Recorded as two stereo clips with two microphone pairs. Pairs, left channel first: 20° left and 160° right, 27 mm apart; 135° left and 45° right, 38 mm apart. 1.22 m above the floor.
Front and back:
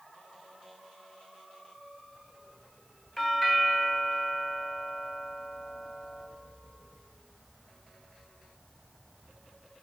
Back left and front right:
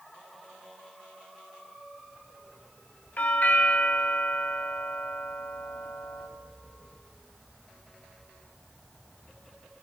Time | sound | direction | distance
3.2 | a doorbell | 100° left | 0.9 m